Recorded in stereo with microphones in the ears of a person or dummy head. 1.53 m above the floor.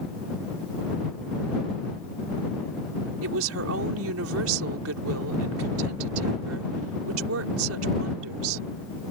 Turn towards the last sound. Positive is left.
turn(degrees=-80)